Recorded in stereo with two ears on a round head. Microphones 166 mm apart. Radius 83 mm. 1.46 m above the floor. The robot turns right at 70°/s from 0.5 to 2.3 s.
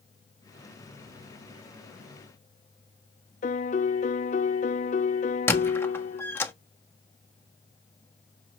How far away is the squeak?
About 1.2 m.